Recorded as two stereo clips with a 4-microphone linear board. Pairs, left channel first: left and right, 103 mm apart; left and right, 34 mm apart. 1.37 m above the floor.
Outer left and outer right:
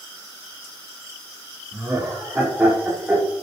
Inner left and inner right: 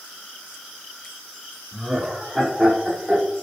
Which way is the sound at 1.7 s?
25° right (ahead or behind).